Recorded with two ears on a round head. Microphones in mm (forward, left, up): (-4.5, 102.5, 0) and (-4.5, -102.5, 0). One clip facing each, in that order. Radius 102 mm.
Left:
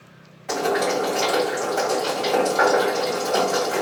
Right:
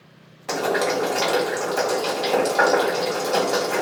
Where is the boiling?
50° right (ahead or behind), 1.4 m.